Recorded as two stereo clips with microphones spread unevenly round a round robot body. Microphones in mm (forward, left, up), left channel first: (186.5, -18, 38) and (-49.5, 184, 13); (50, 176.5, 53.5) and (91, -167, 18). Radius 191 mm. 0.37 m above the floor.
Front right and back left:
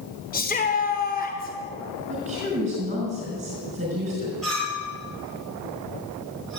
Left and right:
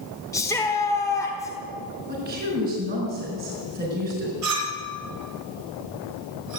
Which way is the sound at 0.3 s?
15° left.